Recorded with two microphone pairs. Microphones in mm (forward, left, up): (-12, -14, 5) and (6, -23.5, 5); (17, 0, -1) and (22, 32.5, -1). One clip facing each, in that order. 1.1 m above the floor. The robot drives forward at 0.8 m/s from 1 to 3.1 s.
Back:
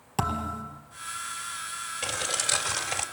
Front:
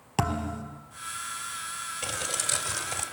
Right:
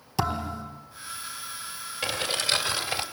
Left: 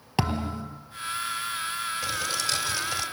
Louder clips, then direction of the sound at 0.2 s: Even, even; 45° left.